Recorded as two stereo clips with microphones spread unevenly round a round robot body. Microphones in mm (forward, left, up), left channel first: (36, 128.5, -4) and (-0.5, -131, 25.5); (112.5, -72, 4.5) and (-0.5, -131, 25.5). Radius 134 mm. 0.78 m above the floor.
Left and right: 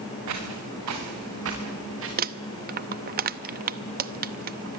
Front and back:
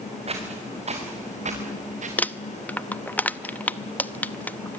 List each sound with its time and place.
0.3 s footsteps: 120° right, 5 m; by 2.1 s 140° right, 5 m
2.2 s crumpling: 45° right, 0.8 m